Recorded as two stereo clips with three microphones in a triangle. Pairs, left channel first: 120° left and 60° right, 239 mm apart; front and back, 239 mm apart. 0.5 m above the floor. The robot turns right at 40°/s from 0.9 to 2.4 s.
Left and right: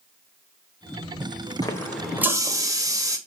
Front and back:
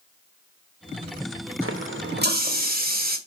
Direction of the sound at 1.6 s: 165° right.